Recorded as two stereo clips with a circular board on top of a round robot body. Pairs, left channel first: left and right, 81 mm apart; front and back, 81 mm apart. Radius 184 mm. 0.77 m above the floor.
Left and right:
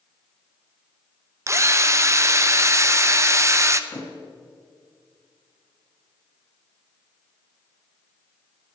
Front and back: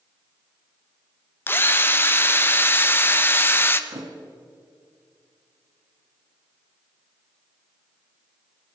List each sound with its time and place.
1.5 s a drill: 50° right, 1.1 m
3.9 s a thud: 145° left, 1.9 m